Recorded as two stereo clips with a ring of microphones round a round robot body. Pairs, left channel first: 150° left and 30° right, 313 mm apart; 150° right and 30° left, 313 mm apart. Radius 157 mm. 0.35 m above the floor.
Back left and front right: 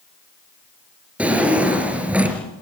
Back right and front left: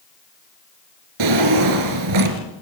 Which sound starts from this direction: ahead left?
A drawer, at 1.2 s.